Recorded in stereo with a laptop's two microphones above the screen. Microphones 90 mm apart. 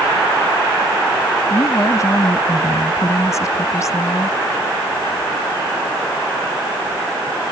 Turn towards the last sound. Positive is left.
turn(degrees=35)  # may be behind; listen again after turning